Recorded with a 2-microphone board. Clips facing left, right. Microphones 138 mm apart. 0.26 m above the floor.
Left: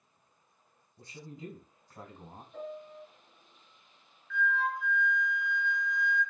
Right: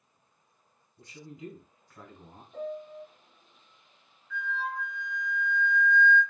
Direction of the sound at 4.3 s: 15° right (ahead or behind).